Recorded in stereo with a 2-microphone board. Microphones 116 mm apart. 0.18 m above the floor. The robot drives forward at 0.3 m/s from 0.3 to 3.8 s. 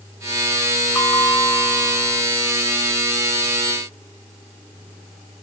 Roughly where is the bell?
Left.